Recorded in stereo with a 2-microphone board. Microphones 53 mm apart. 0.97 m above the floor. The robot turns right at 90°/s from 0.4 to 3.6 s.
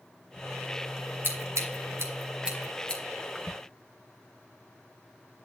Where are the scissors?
50° right (ahead or behind), 2.5 m; by 3.0 s 30° left (ahead or behind), 2.5 m.